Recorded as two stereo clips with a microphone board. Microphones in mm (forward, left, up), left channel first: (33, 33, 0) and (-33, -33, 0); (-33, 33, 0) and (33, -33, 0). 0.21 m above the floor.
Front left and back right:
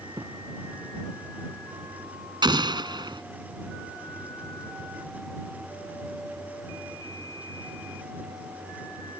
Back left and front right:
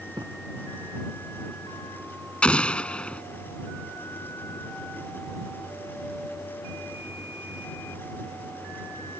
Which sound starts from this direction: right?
A thud, at 0.1 s.